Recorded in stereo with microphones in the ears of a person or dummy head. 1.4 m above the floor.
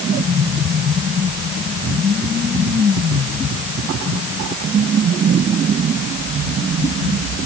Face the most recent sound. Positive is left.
No sound to turn to.